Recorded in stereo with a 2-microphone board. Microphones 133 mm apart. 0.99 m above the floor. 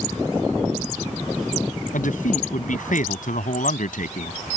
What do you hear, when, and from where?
1.9 s a man speaking: 85° left